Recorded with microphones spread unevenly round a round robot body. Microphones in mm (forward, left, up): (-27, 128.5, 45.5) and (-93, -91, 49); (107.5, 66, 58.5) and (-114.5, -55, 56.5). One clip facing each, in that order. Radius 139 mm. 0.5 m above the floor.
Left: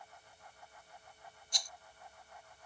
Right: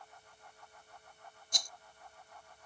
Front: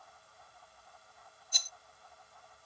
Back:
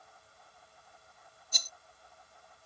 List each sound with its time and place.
1.5 s a rattle: 130° right